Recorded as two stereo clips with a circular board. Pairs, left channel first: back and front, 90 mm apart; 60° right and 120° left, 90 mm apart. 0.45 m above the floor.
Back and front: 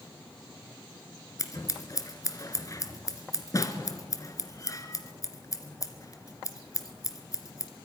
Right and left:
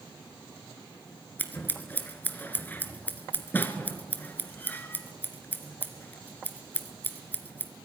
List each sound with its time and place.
1.4 s scissors: 130° right, 1.5 m